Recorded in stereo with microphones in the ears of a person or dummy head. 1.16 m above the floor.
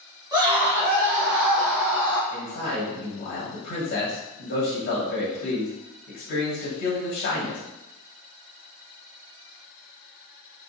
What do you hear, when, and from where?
0.3 s a scream: 20° right (ahead or behind), 1.6 m; by 2.2 s 80° right, 2 m
2.3 s a man speaking: 65° left (ahead or behind), 1.4 m